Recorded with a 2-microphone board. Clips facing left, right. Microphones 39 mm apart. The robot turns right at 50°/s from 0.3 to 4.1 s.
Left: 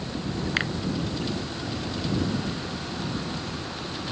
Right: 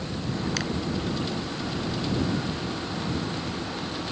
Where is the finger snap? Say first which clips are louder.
Left 3 dB; 30° left (ahead or behind); by 0.7 s 25° left (ahead or behind).